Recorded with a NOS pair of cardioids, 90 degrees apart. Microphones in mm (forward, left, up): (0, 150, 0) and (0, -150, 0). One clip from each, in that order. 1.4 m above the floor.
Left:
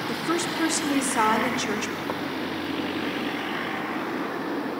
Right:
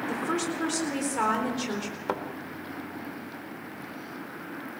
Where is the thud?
25° right, 2.5 m.